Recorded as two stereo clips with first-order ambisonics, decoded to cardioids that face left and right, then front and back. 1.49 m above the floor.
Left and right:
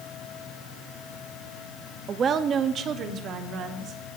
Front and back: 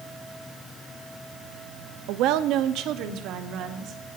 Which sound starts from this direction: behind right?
A woman speaking, at 2.1 s.